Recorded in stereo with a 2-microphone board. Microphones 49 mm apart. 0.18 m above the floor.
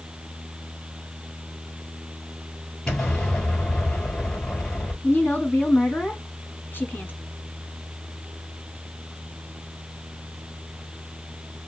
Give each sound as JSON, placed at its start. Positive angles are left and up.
{"t": 2.9, "sound": "an explosion", "side_deg": 15, "distance_m": 2.5}
{"t": 5.0, "sound": "a woman speaking", "side_deg": 40, "distance_m": 1.4}